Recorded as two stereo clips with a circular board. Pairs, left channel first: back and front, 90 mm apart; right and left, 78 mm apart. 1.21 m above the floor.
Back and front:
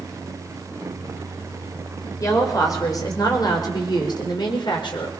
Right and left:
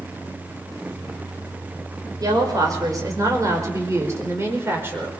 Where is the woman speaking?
125° left, 5.5 m; by 5.1 s 155° left, 5 m.